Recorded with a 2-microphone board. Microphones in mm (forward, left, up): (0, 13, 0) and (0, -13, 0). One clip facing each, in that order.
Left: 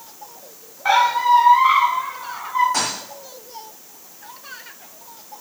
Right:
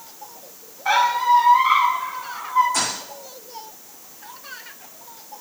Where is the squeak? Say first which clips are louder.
Left 2 dB; 55° left (ahead or behind), 7 m.